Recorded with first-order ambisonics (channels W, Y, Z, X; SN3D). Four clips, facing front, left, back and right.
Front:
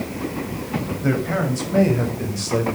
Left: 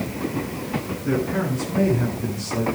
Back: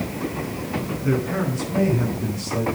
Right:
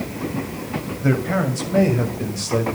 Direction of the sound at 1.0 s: 55° right.